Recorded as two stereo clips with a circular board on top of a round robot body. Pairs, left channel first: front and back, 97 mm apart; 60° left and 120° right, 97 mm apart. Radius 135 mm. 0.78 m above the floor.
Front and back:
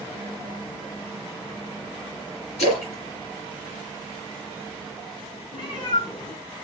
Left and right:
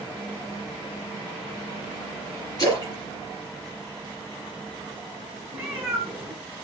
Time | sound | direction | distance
2.6 | a splash | 10° left | 2.0 m
5.5 | a cat meowing | 45° right | 0.9 m